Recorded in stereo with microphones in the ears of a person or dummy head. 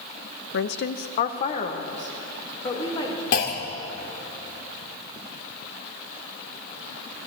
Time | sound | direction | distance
0.5 | a woman speaking | 70° left (ahead or behind) | 0.8 m
3.3 | a clunk | 50° left (ahead or behind) | 1.8 m